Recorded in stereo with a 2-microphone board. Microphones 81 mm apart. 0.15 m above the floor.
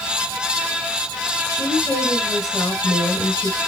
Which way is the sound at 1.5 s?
40° left (ahead or behind).